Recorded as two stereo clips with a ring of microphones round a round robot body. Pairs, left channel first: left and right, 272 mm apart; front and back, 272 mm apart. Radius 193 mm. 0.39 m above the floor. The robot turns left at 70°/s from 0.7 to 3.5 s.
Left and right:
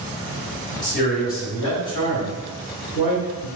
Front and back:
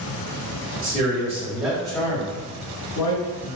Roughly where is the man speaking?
Behind left.